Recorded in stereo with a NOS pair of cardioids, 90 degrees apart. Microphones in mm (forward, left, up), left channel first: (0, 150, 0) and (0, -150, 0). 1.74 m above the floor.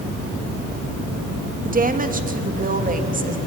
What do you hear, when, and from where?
1.6 s a woman speaking: 25° right, 3 m